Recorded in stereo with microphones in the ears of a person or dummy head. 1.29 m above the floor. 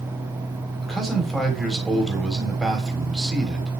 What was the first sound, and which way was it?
A man speaking, 5° right (ahead or behind).